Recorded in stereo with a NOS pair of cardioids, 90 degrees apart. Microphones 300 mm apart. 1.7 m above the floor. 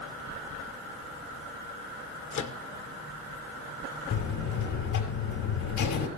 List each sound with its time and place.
2.3 s a microwave: 65° left, 1.3 m
4.1 s a buzzer: 70° left, 5.5 m